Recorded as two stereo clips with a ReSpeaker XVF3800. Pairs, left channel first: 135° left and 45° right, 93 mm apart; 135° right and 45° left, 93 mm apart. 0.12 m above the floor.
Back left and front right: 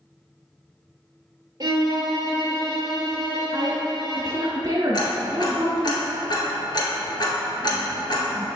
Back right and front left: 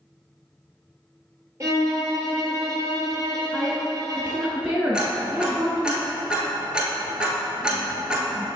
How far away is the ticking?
About 1.4 m.